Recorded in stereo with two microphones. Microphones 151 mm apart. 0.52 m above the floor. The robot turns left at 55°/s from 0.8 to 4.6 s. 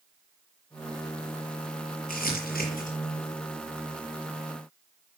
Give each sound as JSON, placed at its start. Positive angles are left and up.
{"t": 2.1, "sound": "crumpling", "side_deg": 75, "distance_m": 6.0}